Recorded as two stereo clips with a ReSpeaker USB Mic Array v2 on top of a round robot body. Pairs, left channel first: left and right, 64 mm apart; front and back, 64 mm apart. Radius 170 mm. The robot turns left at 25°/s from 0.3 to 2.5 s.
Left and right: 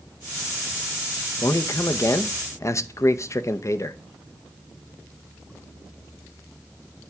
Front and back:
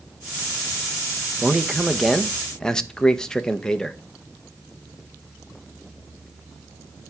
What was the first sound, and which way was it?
A man speaking, 105° left.